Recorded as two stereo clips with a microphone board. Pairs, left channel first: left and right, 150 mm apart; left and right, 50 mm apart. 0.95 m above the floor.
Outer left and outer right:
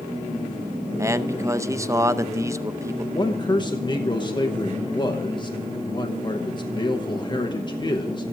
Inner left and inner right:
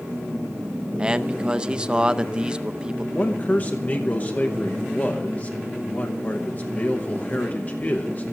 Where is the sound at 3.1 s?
30° left (ahead or behind), 0.9 m.